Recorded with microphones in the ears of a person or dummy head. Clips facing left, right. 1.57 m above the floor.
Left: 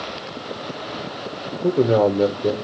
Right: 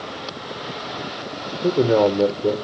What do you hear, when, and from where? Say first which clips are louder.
1.6 s a man speaking: even; 10° left (ahead or behind), 1.1 m